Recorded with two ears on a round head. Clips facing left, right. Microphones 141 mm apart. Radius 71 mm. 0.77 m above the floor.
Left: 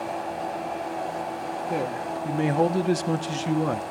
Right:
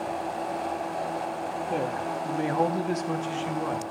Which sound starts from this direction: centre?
A man speaking, at 1.7 s.